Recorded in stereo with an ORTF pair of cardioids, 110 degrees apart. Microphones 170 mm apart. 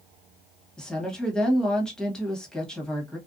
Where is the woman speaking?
5° left, 1.1 m.